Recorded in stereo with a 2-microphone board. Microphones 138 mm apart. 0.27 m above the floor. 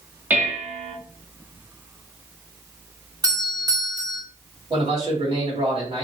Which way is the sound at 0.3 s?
15° right (ahead or behind).